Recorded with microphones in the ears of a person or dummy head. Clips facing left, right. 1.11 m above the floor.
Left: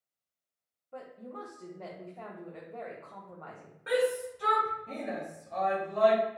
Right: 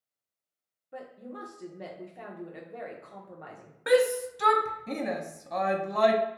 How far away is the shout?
About 0.6 m.